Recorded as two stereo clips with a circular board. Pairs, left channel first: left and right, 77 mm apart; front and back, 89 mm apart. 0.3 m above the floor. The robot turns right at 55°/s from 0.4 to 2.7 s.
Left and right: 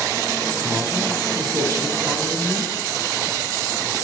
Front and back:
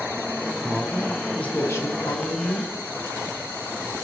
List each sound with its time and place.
0.6 s a man speaking: 115° right, 3.5 m; by 2.7 s straight ahead, 3.5 m